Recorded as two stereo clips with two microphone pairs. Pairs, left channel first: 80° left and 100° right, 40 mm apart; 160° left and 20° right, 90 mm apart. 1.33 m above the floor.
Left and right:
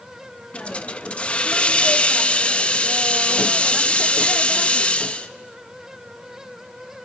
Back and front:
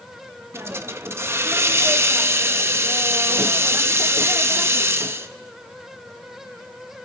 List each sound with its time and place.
0.5 s a hiss: 35° left, 0.7 m